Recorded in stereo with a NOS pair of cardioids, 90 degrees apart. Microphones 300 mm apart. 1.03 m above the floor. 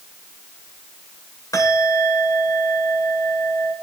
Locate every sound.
1.5 s a bell: 10° left, 4 m